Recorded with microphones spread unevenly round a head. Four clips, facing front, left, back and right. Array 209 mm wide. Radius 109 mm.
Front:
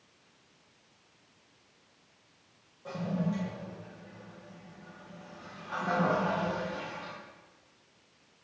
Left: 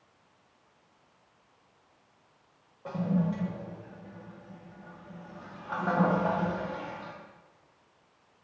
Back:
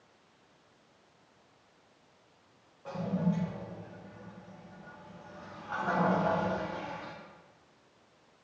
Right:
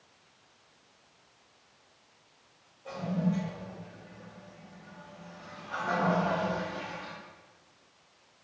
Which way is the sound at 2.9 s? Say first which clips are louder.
Left 2 dB, back 1 dB; 80° left.